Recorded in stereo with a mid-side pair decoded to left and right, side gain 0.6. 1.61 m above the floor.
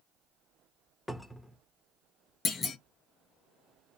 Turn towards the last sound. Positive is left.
turn(degrees=40)